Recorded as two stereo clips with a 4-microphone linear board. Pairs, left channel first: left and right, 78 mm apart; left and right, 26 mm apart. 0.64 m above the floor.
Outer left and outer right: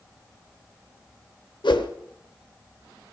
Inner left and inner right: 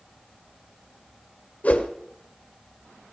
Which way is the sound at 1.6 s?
85° left.